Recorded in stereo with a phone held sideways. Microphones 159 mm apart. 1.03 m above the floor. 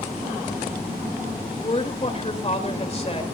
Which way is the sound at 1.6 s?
40° left (ahead or behind).